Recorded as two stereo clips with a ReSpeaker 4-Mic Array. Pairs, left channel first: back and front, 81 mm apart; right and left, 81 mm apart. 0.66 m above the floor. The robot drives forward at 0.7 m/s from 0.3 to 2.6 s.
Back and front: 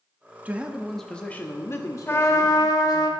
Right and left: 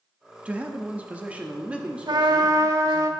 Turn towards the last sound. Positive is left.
turn(degrees=135)